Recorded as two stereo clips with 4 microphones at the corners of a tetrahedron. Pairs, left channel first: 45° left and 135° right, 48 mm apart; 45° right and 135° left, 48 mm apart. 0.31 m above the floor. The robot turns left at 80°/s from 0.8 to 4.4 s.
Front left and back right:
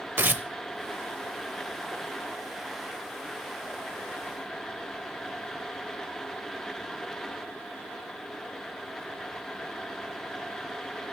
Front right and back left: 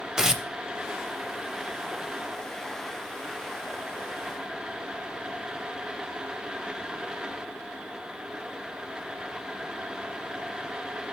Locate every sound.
0.2 s tearing paper: 150° right, 0.6 m